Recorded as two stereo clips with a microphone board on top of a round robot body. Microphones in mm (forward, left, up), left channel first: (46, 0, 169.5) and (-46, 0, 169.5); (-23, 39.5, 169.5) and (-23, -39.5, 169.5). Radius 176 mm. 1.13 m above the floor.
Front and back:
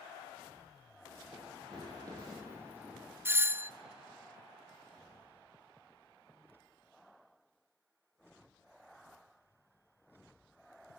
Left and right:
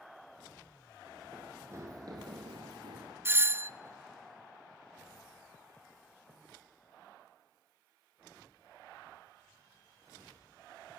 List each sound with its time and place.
1.3 s running footsteps: 155° right, 1.3 m; by 3.1 s 105° right, 1.6 m
3.2 s a doorbell: 130° right, 0.5 m